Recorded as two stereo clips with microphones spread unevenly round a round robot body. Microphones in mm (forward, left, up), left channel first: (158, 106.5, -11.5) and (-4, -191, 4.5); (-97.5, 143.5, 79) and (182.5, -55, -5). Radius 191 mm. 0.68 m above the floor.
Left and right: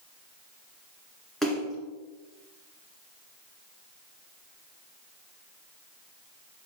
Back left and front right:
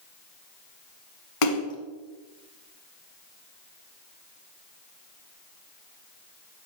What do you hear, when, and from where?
1.4 s a splash: 150° left, 1.0 m